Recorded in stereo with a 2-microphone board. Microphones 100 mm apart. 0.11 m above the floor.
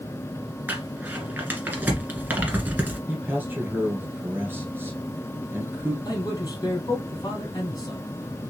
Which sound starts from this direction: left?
A man speaking, at 6.0 s.